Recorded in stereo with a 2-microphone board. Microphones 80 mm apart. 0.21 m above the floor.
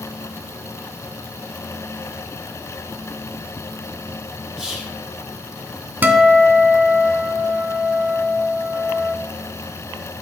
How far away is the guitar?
About 0.7 m.